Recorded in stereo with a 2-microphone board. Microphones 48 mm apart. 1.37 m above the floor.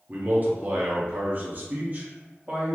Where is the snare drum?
I don't hear a snare drum.